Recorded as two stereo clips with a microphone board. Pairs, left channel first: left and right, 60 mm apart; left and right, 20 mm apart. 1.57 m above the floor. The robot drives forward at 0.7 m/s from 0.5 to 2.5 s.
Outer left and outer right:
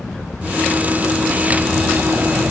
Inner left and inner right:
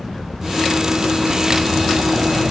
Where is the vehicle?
15° left (ahead or behind); by 2.5 s 25° right (ahead or behind).